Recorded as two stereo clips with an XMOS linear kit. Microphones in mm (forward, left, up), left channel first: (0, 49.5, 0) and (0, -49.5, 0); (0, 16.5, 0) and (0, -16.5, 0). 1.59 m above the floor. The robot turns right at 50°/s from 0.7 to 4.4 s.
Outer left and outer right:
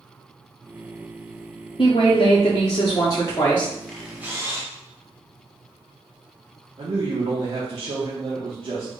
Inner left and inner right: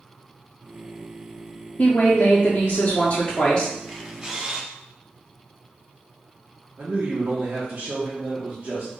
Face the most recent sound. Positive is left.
turn(degrees=-55)  # may be behind; listen again after turning